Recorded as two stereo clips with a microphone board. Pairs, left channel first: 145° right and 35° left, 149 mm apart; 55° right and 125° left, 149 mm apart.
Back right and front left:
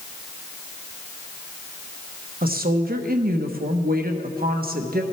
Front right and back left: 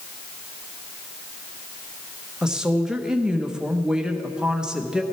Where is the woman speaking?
40° left, 1.1 m.